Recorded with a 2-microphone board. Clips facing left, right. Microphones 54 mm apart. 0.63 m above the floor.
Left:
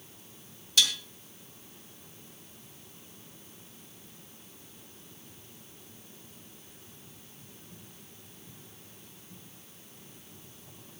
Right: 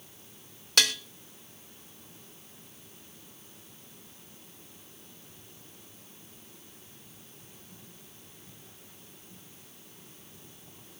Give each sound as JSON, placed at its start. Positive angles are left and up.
{"t": 0.8, "sound": "dishes clattering", "side_deg": -55, "distance_m": 1.2}